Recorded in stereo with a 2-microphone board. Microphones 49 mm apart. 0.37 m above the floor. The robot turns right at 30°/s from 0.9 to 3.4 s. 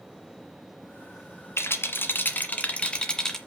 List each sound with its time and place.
1.6 s a rattle: 115° left, 1.5 m; by 3.4 s 170° left, 1.5 m